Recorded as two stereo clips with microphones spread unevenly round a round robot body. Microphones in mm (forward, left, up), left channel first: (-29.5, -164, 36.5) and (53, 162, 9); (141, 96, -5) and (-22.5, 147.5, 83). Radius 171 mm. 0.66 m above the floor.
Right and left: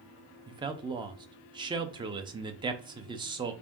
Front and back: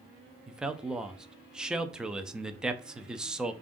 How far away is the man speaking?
About 0.5 m.